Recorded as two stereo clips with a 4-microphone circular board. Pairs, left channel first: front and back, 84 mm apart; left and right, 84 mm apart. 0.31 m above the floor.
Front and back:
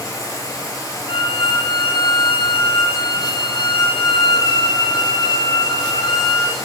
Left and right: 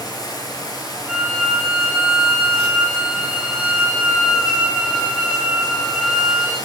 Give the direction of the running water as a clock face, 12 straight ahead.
10 o'clock.